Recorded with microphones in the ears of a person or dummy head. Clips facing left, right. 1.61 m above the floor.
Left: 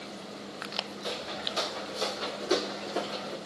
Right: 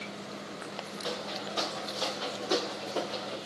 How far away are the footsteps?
About 8 m.